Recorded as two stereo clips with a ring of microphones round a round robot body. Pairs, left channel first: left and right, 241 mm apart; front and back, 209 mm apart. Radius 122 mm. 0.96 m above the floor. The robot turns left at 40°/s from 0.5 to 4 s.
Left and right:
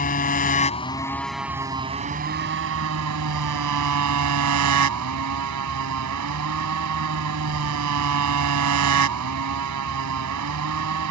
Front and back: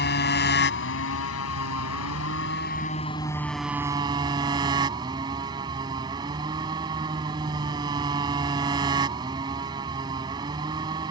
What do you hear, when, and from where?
0.0 s a motorcycle: 35° left; by 11.1 s 105° right